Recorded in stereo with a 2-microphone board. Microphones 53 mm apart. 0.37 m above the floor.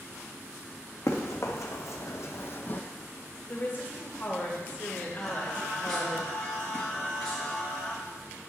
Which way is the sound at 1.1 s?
75° left (ahead or behind).